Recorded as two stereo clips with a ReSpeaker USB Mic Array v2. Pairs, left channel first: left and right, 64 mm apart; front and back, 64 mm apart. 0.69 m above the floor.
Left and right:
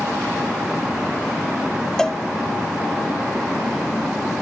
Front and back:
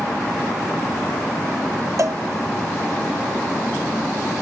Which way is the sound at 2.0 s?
170° left.